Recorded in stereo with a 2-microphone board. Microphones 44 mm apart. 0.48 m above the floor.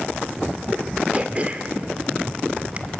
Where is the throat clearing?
30° right (ahead or behind), 1.4 m.